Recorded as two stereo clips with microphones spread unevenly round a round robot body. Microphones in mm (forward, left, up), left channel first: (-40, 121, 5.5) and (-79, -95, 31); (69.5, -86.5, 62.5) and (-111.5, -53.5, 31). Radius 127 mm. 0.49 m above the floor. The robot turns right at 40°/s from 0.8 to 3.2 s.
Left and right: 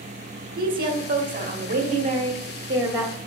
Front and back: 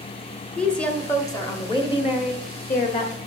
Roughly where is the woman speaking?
Right.